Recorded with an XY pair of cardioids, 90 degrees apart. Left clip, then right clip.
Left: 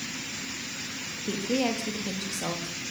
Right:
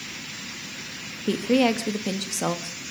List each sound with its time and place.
1.3 s a woman speaking: 60° right, 3 m